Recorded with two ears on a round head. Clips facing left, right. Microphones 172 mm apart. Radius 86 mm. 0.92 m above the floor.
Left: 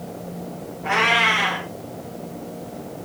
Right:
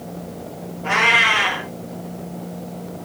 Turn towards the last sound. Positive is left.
turn(degrees=-50)  # may be behind; listen again after turning